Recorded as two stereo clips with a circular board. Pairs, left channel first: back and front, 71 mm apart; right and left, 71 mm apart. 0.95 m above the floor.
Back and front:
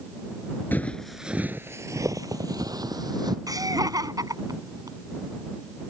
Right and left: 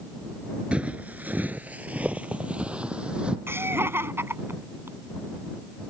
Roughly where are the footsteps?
Behind left.